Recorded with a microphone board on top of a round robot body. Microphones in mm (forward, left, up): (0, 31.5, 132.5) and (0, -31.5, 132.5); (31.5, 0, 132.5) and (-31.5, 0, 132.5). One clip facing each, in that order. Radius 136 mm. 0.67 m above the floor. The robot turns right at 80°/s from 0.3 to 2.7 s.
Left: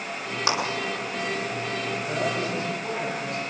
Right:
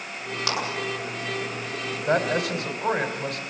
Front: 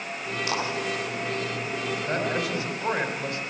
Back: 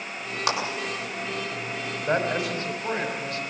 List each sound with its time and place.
0.5 s a clap: 165° left, 7.5 m; by 0.6 s 170° left, 7.5 m
2.1 s a man speaking: 120° right, 3.5 m; by 3.4 s 70° right, 3.5 m